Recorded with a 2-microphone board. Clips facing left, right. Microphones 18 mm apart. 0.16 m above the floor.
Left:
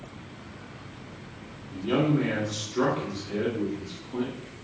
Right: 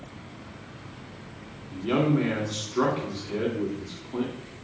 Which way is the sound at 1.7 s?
20° right (ahead or behind).